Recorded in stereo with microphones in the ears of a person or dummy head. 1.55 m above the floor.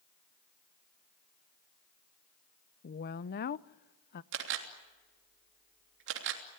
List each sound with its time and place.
2.8 s a woman speaking: 45° left (ahead or behind), 0.5 m
4.3 s a camera shutter: 65° right (ahead or behind), 3 m